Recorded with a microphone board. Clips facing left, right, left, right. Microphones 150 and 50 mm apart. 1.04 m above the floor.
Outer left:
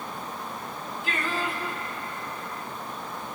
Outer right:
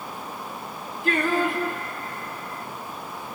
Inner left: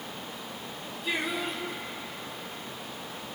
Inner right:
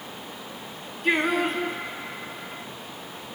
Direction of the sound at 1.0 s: 60° right (ahead or behind).